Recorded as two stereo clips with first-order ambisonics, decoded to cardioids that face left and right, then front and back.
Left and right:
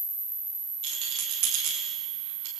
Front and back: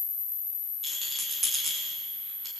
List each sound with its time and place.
0.8 s a rattle: 105° right, 5 m